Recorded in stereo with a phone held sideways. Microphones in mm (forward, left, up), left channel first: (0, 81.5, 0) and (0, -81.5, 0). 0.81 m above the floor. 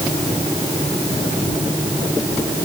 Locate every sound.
Only background noise.